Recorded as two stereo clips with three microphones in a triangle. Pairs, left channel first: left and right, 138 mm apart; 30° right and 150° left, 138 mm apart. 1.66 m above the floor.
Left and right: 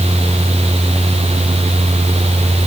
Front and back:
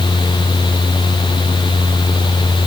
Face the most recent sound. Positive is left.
No sound to turn to.